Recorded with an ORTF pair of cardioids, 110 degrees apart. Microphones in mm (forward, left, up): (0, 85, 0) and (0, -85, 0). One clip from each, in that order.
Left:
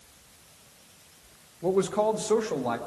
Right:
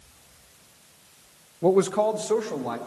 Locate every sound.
1.6 s a man speaking: 40° right, 0.6 m; by 2.8 s 15° left, 1.8 m